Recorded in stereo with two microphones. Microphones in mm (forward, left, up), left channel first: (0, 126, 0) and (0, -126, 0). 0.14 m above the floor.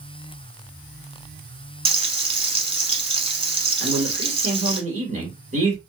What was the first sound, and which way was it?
Frying, 25° right (ahead or behind).